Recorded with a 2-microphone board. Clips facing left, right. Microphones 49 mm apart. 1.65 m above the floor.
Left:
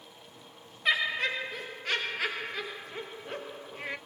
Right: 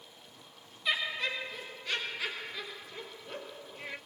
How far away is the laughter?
About 0.8 m.